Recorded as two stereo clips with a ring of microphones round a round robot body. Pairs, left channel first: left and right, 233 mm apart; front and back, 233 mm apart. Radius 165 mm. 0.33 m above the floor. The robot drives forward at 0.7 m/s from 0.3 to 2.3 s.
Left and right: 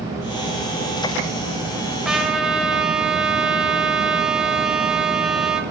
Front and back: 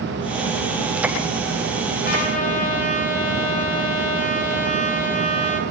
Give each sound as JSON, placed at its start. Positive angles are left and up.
{"t": 2.0, "sound": "a trumpet", "azimuth_deg": -5, "distance_m": 1.3}